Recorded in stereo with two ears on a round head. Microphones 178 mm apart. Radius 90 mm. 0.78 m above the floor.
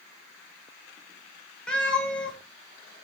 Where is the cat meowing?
5° left (ahead or behind), 1.8 m.